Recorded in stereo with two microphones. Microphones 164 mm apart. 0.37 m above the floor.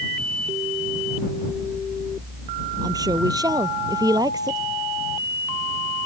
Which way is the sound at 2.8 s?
20° right (ahead or behind).